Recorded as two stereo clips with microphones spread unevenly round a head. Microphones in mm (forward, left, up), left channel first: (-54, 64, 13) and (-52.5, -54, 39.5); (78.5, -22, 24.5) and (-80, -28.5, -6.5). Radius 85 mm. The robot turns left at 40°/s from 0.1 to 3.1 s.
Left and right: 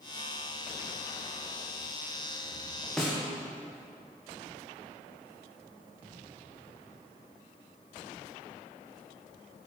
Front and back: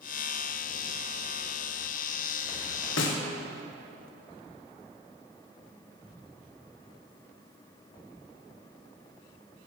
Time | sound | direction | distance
3.0 | a snare drum | straight ahead | 1.3 m